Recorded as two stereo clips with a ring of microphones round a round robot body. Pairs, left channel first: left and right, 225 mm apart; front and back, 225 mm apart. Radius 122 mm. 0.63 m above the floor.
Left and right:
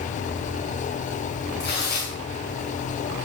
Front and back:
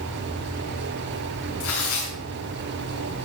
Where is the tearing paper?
35° left, 5.5 m.